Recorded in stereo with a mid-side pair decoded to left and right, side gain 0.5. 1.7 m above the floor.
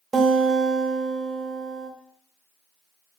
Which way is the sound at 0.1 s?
25° right.